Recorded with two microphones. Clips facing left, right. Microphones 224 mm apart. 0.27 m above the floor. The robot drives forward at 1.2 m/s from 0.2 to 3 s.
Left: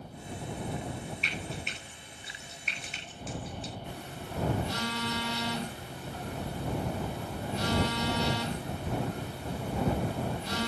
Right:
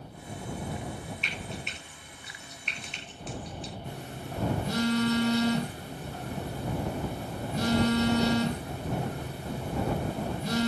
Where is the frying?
Centre (ahead or behind), 8 m; by 3.7 s 5° left (ahead or behind), 6 m.